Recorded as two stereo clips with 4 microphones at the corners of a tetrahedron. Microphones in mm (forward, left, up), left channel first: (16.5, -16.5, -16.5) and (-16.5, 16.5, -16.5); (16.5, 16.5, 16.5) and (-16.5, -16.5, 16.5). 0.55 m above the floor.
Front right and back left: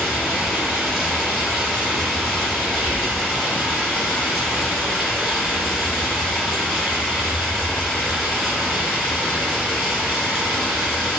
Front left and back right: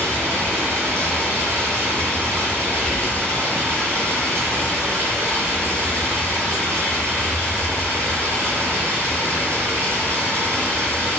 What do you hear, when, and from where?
0.0 s running water: 130° right, 1.1 m
2.8 s whispering: 10° right, 1.0 m